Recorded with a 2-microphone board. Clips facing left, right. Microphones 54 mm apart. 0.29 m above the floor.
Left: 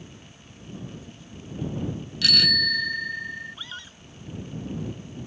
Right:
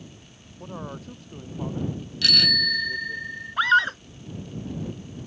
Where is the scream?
75° right (ahead or behind).